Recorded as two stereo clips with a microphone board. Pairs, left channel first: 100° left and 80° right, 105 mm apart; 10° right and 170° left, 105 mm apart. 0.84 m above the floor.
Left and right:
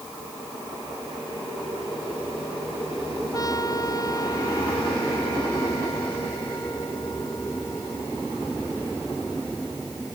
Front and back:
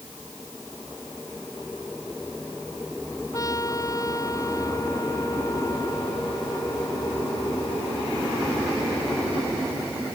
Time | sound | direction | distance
3.3 | a trumpet | 45° left | ?